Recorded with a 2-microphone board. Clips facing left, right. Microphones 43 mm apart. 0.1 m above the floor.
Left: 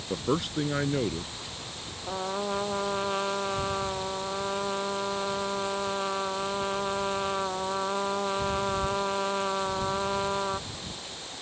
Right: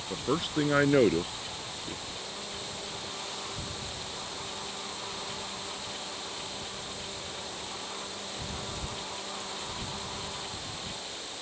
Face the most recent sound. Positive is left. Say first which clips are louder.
# left 10 dB
turn(degrees=65)  # may be behind; listen again after turning